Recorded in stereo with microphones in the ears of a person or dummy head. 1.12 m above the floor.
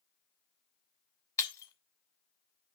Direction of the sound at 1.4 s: 20° left (ahead or behind).